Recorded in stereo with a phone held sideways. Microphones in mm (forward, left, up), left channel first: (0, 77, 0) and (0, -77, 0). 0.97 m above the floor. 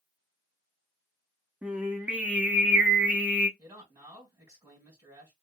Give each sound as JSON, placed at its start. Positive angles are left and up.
{"t": 1.6, "sound": "singing", "side_deg": -10, "distance_m": 0.6}
{"t": 3.6, "sound": "a man speaking", "side_deg": -25, "distance_m": 1.5}